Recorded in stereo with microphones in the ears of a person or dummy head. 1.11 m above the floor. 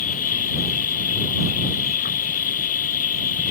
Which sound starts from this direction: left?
An insect, at 0.0 s.